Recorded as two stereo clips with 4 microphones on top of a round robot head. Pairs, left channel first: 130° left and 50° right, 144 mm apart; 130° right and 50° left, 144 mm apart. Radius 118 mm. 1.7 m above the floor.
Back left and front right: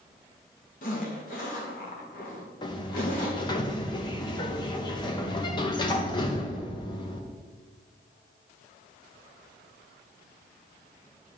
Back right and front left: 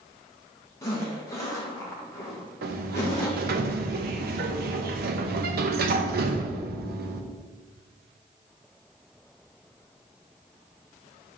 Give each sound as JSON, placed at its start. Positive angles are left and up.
{"t": 0.8, "sound": "a zipper", "azimuth_deg": 160, "distance_m": 1.6}
{"t": 2.6, "sound": "a sliding door", "azimuth_deg": 65, "distance_m": 0.7}